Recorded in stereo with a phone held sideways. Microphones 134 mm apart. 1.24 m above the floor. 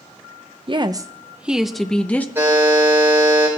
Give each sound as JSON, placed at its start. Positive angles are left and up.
{"t": 0.7, "sound": "a woman speaking", "side_deg": -40, "distance_m": 0.7}
{"t": 2.4, "sound": "a buzzer", "side_deg": -15, "distance_m": 5.0}